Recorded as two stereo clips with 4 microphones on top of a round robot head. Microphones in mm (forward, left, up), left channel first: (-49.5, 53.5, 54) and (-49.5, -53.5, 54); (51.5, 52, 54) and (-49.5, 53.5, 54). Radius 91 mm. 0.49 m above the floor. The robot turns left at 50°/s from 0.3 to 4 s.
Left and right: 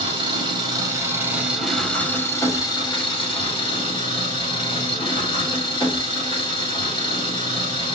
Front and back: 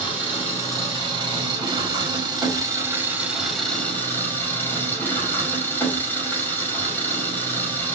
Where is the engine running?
110° right, 1.5 m; by 8.0 s 65° left, 1.5 m.